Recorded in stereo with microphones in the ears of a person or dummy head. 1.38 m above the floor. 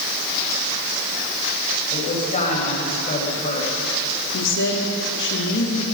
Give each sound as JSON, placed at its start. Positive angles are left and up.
{"t": 1.9, "sound": "a woman speaking", "side_deg": 45, "distance_m": 6.5}
{"t": 4.3, "sound": "a woman speaking", "side_deg": 70, "distance_m": 3.5}